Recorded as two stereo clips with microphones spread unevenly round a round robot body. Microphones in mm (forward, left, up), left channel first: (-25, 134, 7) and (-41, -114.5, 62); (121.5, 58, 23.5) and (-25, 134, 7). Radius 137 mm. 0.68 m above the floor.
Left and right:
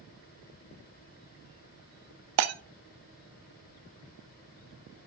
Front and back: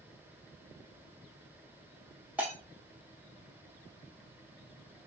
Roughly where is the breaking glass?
Behind right.